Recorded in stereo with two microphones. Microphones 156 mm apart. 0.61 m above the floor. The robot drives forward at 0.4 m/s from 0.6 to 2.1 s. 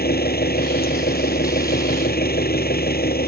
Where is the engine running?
85° left; by 3.3 s 80° left.